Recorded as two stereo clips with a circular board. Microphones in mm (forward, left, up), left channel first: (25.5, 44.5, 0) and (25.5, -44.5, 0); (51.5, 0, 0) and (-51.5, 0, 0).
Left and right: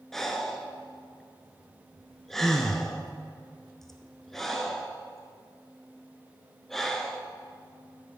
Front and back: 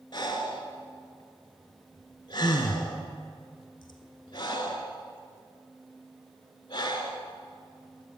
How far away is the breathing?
About 0.9 m.